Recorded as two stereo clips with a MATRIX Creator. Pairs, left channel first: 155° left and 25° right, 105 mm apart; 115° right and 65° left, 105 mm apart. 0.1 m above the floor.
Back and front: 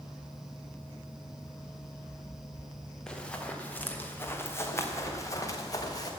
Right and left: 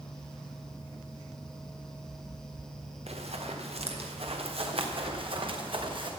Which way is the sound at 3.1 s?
75° left.